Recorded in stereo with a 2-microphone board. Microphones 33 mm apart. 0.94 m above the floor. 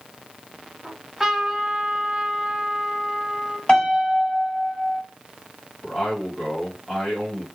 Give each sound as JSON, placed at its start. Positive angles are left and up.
{"t": 0.8, "sound": "a trumpet", "side_deg": -10, "distance_m": 1.1}
{"t": 3.7, "sound": "a piano", "side_deg": 30, "distance_m": 2.0}
{"t": 5.8, "sound": "a man speaking", "side_deg": -5, "distance_m": 1.6}